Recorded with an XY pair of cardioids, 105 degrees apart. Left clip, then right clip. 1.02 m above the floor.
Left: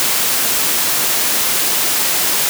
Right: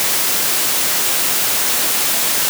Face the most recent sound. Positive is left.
No sound to turn to.